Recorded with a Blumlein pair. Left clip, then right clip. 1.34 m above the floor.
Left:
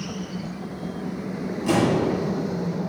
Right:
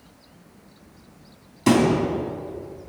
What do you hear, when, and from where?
1.7 s a thud: 55° right, 3.5 m